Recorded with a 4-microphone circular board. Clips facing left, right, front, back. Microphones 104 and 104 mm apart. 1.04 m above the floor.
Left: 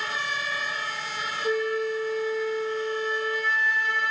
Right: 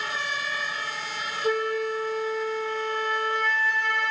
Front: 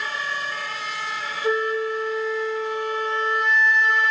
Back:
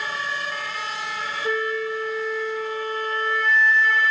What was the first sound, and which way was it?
A flute, 65° right.